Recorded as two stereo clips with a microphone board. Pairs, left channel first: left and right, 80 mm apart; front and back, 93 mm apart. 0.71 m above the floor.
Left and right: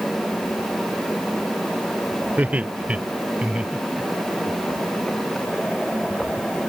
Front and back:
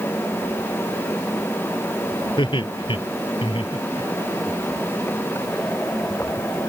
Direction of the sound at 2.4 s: 20° right.